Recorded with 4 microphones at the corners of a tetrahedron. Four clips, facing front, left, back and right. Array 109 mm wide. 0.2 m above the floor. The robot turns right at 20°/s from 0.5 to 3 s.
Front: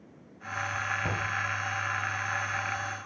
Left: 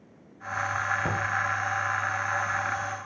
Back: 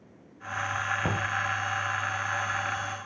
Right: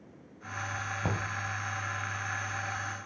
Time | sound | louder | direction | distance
1.0 | knocking | left 5 dB, back 2 dB | 170° left | 0.9 m